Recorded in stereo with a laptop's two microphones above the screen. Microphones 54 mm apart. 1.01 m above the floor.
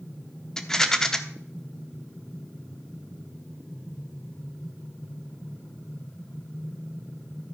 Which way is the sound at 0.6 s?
10° left (ahead or behind).